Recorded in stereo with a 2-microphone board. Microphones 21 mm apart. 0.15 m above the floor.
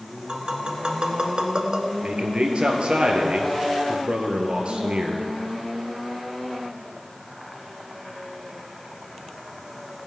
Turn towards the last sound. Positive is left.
turn(degrees=-55)  # may be behind; listen again after turning